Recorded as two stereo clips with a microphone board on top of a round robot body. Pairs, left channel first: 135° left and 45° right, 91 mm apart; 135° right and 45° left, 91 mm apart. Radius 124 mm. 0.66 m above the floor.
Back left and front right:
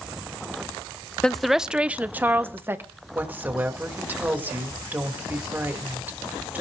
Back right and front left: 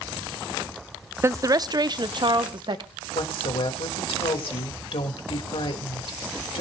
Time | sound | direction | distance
1.2 | a woman speaking | 60° left | 0.6 m
3.1 | a woman speaking | 115° right | 2.5 m